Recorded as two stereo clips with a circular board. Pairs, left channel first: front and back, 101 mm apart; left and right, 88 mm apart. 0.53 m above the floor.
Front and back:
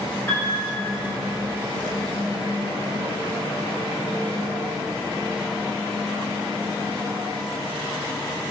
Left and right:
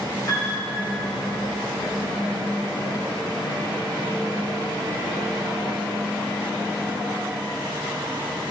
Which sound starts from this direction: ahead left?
A piano, at 0.3 s.